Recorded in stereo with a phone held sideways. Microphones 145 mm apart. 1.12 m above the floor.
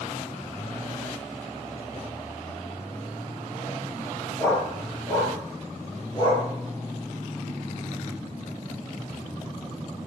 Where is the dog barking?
10° left (ahead or behind), 6 m; by 6.5 s 30° left (ahead or behind), 5.5 m.